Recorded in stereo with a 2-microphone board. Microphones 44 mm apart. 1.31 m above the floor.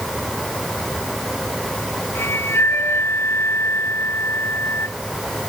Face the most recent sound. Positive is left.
turn(degrees=70)  # may be behind; listen again after turning